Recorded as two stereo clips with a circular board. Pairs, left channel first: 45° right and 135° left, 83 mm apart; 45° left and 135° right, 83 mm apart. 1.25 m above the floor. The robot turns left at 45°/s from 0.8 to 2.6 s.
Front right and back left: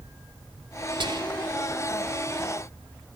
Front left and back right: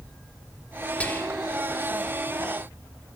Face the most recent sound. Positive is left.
turn(degrees=50)